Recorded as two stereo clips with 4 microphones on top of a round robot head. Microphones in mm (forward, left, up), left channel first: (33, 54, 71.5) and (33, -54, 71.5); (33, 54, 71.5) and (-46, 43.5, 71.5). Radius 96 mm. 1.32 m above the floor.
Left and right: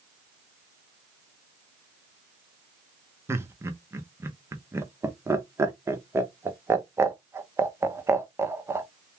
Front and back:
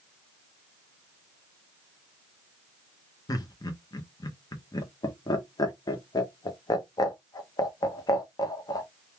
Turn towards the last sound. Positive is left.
turn(degrees=-25)